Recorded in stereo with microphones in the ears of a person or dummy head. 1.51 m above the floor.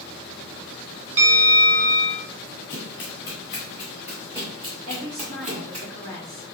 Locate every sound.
1.2 s a bell: 40° right (ahead or behind), 1.0 m
2.7 s running footsteps: 15° left (ahead or behind), 1.5 m; by 5.9 s 45° right (ahead or behind), 2.5 m
4.9 s a woman speaking: 70° right (ahead or behind), 2.0 m